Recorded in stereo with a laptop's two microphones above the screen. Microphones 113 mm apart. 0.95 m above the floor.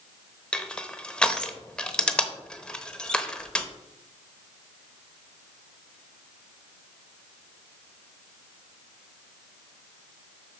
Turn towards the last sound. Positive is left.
turn(degrees=10)  # may be behind; listen again after turning